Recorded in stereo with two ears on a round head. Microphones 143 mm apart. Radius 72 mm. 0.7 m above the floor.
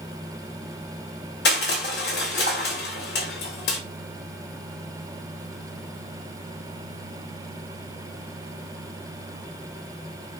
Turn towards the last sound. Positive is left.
turn(degrees=70)  # may be behind; listen again after turning